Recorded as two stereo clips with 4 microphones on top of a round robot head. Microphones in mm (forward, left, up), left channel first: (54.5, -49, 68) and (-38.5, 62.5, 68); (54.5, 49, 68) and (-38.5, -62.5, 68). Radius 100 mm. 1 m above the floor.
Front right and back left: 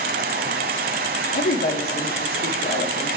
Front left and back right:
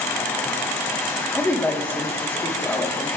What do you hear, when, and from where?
0.0 s running water: 125° left, 1.1 m
1.3 s a woman speaking: 30° right, 1.7 m